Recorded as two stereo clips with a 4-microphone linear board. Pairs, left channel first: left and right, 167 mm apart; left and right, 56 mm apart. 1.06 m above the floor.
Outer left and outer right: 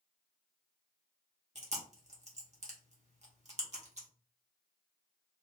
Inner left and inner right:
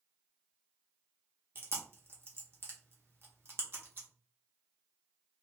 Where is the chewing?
45° right (ahead or behind), 0.9 m.